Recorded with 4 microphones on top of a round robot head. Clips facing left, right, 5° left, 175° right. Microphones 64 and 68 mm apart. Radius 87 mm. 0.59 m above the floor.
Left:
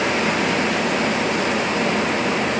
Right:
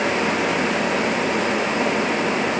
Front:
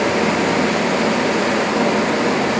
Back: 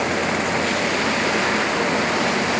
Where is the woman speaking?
No woman speaking in this recording.